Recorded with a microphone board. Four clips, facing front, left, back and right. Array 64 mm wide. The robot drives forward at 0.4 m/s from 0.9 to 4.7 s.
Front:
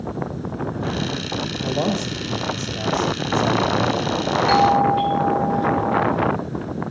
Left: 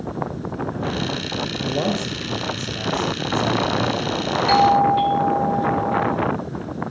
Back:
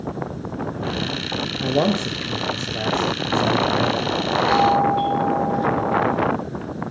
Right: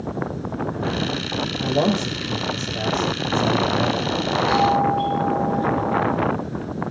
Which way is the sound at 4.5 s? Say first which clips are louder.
Left 4 dB, front 1 dB; 85° left.